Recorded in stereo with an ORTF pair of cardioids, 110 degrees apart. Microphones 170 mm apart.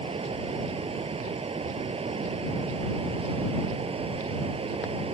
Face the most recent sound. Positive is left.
turn(degrees=-35)